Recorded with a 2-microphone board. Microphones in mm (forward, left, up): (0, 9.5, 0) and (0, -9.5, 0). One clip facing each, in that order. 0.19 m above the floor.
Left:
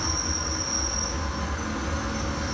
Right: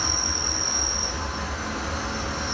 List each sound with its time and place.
0.0 s an insect: 35° right (ahead or behind), 0.7 m